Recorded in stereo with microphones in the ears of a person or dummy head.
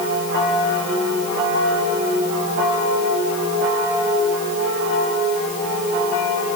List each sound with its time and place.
Only background noise.